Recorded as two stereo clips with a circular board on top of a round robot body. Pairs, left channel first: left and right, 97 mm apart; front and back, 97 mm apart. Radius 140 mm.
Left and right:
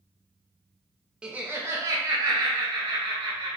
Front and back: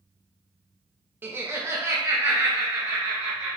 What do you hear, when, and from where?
1.2 s laughter: 155° right, 0.7 m; by 3.6 s 115° right, 1.6 m